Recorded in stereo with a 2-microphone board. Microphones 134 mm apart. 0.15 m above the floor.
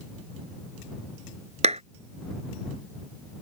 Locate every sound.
1.6 s a clap: 55° right (ahead or behind)